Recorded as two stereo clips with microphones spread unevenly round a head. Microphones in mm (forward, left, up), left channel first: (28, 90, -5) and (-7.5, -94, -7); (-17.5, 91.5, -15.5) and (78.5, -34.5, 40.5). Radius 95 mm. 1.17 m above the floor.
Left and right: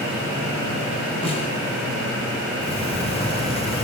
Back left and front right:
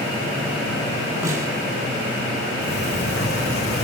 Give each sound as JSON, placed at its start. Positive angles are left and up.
{"t": 1.2, "sound": "a snare drum", "azimuth_deg": 20, "distance_m": 5.0}
{"t": 2.6, "sound": "a sliding door", "azimuth_deg": 140, "distance_m": 7.0}